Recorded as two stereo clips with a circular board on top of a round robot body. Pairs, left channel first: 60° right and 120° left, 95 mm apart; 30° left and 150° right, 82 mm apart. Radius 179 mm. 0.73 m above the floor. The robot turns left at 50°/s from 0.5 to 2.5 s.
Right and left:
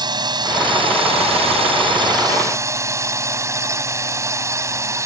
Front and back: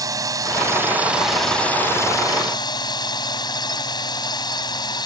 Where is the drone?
165° left; by 5.0 s 65° left.